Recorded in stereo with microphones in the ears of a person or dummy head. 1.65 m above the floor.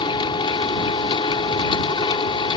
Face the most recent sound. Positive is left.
turn(degrees=25)  # may be behind; listen again after turning